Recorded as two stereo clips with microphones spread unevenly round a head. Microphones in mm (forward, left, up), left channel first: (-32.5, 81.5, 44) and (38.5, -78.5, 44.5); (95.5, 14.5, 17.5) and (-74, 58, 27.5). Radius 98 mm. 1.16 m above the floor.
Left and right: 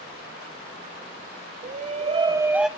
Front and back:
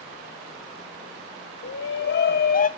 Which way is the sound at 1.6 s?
20° right.